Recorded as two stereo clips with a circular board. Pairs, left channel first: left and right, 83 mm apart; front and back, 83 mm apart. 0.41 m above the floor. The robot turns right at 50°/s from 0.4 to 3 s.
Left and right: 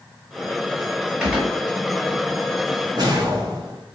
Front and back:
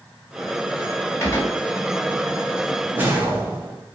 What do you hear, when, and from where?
1.2 s a gunshot: 15° right, 1.3 m; by 1.6 s 5° left, 1.3 m
2.9 s a whoosh: 120° right, 1.1 m; by 3.8 s 115° right, 1.1 m